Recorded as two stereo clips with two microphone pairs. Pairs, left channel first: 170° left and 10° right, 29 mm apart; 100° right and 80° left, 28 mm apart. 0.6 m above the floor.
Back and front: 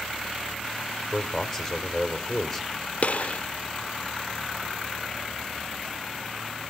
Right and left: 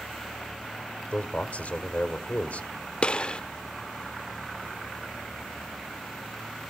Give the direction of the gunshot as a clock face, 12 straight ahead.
5 o'clock.